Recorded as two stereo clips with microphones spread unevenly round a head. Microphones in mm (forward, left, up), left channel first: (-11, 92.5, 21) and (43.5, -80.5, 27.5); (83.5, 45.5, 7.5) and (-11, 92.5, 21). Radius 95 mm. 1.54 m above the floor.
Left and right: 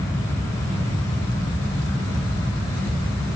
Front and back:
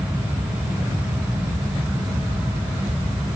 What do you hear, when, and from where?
Only background noise.